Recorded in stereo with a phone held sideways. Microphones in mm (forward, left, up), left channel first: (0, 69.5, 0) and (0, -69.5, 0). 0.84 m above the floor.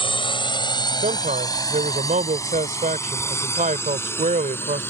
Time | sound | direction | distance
0.0 | a drone | 40° left (ahead or behind) | ?
1.0 | a man speaking | 75° right (ahead or behind) | ?